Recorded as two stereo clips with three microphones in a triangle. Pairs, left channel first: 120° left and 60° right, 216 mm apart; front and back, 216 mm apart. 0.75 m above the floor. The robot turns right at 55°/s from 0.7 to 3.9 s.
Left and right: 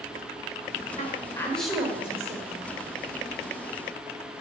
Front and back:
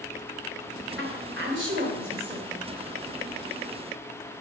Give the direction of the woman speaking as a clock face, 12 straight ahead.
6 o'clock.